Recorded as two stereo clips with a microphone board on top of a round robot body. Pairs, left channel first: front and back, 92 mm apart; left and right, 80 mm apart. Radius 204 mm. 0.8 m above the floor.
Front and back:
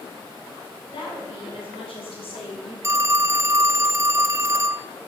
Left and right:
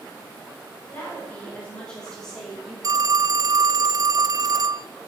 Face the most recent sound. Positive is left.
turn(degrees=-125)